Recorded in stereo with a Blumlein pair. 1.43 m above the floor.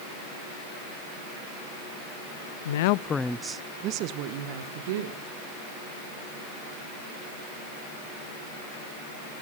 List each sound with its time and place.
2.6 s a woman speaking: 65° left, 0.6 m; by 5.2 s 55° right, 2 m